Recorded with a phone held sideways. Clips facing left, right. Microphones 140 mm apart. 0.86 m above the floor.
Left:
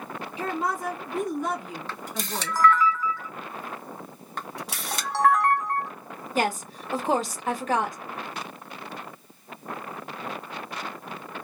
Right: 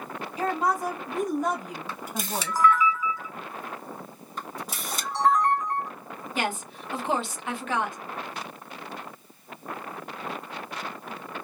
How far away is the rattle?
I don't hear a rattle.